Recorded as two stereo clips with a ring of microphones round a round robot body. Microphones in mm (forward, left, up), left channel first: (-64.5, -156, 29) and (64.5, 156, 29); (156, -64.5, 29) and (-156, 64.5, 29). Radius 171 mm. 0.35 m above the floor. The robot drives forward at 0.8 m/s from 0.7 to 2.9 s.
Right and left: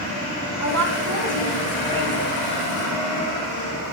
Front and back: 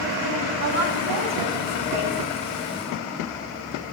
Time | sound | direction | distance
0.6 | a woman speaking | 115° left | 1.7 m